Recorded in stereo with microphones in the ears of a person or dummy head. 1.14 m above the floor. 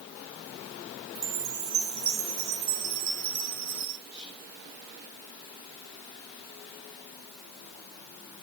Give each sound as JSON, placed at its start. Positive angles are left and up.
{"t": 1.1, "sound": "a chime", "side_deg": -55, "distance_m": 1.1}
{"t": 4.1, "sound": "whispering", "side_deg": -75, "distance_m": 7.5}